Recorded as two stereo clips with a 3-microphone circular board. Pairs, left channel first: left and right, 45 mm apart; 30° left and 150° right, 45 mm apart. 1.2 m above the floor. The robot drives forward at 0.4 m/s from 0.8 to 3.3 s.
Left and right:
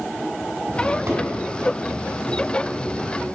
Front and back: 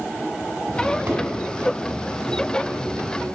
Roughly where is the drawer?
Right.